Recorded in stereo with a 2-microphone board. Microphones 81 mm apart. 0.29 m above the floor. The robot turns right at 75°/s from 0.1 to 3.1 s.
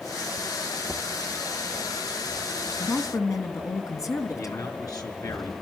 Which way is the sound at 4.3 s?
45° left (ahead or behind).